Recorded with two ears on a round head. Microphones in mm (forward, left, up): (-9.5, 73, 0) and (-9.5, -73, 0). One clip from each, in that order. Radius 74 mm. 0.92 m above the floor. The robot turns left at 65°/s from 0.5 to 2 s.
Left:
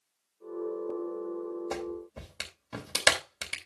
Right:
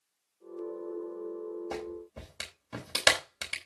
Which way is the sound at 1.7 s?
25° left (ahead or behind).